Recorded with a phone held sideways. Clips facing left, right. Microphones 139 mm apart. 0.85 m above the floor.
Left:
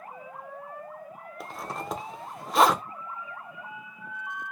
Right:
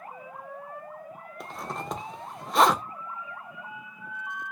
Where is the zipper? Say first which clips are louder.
Even; centre (ahead or behind), 0.6 m.